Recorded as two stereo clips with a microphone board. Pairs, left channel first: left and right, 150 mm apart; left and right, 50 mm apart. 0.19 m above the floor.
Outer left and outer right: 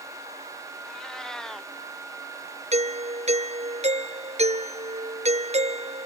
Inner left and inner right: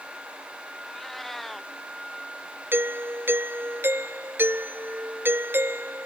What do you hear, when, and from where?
0.8 s a cat meowing: 5° left (ahead or behind)
2.7 s a doorbell: 45° right (ahead or behind)